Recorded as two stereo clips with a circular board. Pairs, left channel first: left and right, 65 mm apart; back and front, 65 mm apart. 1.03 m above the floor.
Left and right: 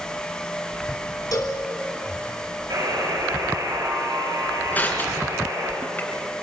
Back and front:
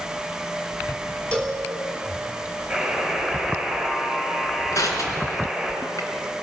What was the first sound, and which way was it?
A cowbell, 110° left.